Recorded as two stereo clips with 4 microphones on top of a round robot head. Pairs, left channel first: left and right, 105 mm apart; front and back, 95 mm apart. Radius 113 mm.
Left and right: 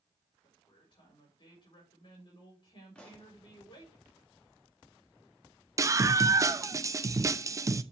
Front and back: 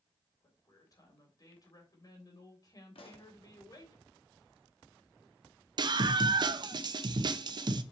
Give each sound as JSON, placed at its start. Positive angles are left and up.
{"t": 0.4, "sound": "a woman speaking", "azimuth_deg": 45, "distance_m": 3.5}
{"t": 3.0, "sound": "a pop", "azimuth_deg": 10, "distance_m": 1.7}
{"t": 5.8, "sound": "a scream", "azimuth_deg": -145, "distance_m": 0.9}